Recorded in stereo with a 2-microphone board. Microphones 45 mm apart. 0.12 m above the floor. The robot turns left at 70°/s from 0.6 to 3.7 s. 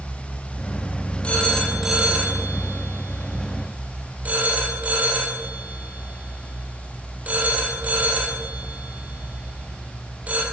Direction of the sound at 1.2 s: 25° left (ahead or behind).